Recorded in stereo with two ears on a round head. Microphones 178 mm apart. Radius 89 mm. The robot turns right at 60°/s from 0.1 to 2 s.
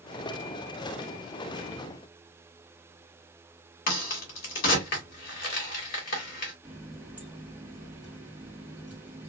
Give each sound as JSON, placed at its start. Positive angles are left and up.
{"t": 3.9, "sound": "a crack", "side_deg": 50, "distance_m": 1.6}
{"t": 6.6, "sound": "a running tap", "side_deg": -5, "distance_m": 1.4}